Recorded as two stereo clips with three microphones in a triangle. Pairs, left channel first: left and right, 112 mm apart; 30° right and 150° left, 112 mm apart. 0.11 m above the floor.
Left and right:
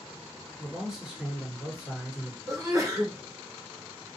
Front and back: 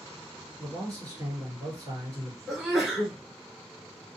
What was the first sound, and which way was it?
A man speaking, straight behind.